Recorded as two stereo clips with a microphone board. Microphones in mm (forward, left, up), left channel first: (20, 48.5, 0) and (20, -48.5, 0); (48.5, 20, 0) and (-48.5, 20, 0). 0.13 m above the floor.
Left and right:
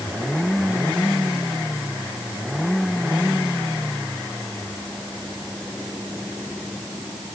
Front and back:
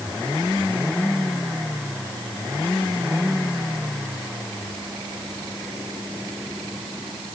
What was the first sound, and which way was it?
Only background noise.